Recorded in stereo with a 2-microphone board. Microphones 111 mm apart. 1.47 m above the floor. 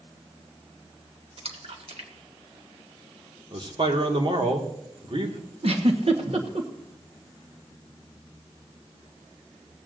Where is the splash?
65° right (ahead or behind), 1.7 m.